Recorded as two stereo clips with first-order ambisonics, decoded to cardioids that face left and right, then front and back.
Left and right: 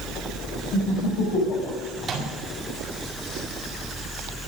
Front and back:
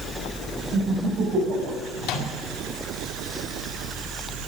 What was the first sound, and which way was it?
Laughter, 125° left.